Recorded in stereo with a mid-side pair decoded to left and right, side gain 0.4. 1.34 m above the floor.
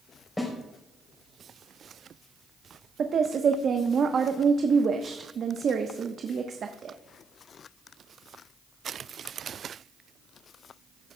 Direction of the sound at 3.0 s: 55° right.